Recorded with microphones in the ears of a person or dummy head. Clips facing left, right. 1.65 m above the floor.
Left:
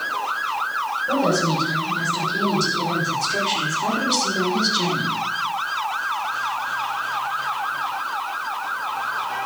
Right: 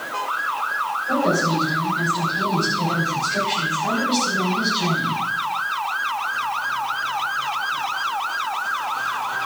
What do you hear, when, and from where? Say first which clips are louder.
1.1 s a woman speaking: even; 60° left (ahead or behind), 7 m; by 5.2 s 75° left (ahead or behind), 3 m